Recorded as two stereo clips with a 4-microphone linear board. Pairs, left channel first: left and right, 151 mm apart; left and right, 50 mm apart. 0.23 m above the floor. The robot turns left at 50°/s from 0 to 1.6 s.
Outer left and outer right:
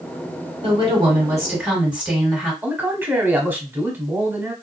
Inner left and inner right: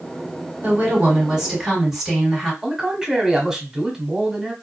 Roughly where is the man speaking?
Centre.